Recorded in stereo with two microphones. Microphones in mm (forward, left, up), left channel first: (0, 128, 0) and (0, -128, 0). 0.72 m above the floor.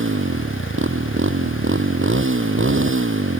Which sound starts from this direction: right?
A motorcycle, at 0.0 s.